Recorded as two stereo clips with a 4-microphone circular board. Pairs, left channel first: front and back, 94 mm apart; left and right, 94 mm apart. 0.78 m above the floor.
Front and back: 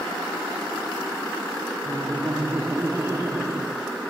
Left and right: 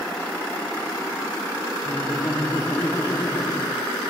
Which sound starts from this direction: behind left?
Laughter, at 1.9 s.